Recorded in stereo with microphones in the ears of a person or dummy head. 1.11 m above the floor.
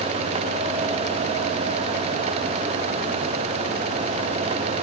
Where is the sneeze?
No sneeze in this recording.